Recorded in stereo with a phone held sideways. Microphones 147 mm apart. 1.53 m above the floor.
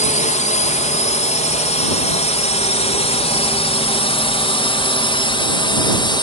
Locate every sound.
0.0 s a drone: 55° left (ahead or behind); by 6.2 s 35° left (ahead or behind)